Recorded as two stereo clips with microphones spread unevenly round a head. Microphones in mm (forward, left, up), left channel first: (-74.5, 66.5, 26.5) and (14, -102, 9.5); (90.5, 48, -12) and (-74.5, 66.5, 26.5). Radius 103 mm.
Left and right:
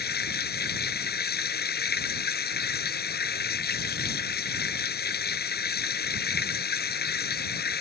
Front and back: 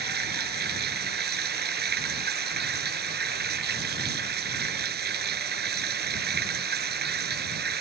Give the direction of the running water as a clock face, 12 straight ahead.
7 o'clock.